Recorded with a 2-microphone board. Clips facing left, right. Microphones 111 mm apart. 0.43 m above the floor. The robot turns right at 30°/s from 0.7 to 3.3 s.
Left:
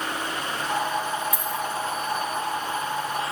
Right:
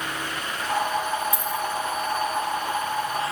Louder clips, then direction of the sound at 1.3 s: Right 1 dB; 25° right (ahead or behind).